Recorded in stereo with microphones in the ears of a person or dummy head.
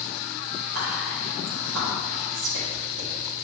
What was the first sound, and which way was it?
Whispering, 85° right.